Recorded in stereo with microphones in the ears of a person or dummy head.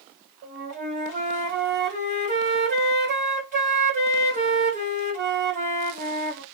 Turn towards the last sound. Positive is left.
turn(degrees=-50)  # may be behind; listen again after turning